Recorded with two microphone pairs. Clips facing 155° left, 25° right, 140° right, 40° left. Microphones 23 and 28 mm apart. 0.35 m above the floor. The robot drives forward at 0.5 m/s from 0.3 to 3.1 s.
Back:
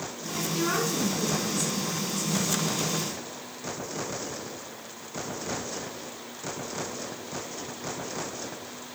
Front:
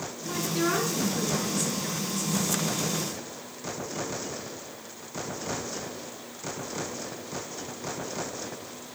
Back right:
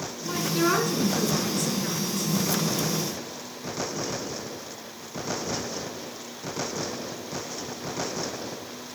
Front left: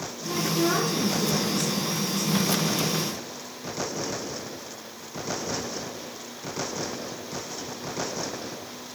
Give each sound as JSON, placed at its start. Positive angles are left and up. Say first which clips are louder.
{"t": 0.2, "sound": "a woman speaking", "louder": "front 1 dB, back right 1 dB", "azimuth_deg": -110, "distance_m": 4.0}